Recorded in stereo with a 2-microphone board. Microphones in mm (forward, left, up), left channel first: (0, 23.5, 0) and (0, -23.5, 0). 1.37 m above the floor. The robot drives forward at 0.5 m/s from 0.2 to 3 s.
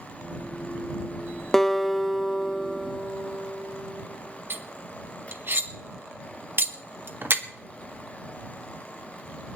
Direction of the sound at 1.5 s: 10° left (ahead or behind).